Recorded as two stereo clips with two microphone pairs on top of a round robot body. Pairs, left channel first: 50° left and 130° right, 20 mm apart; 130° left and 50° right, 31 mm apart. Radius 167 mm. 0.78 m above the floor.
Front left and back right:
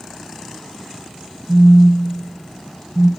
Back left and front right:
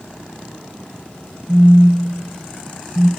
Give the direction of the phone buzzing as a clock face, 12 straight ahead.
4 o'clock.